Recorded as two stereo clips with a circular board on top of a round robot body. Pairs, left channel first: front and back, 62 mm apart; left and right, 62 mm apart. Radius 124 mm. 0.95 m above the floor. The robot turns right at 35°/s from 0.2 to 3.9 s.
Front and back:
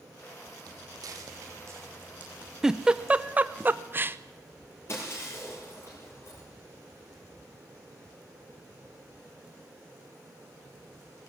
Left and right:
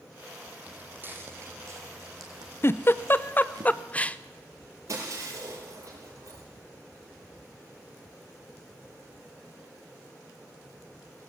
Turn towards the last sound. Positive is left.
turn(degrees=-50)